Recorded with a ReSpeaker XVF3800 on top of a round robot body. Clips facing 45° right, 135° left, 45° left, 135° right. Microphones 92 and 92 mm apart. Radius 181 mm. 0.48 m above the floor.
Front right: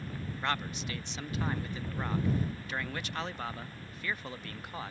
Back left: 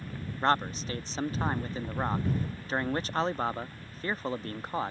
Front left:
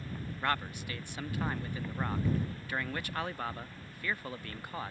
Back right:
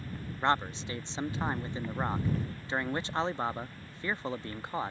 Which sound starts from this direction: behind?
A man speaking, at 0.4 s.